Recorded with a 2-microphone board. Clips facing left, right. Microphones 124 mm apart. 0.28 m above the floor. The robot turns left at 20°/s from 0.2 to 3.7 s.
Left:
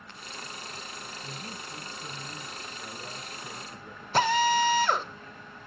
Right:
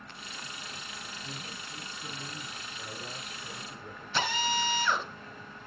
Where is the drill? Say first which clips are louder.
Left 8 dB; 45° left (ahead or behind), 1.2 m.